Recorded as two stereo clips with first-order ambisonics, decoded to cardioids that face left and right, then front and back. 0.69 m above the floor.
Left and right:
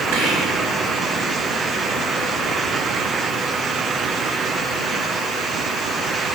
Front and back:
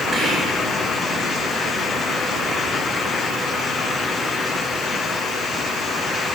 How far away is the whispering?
About 2.5 m.